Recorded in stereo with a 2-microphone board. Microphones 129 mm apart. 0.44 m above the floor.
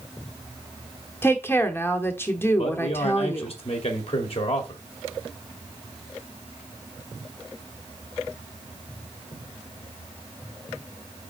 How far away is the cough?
I don't hear a cough.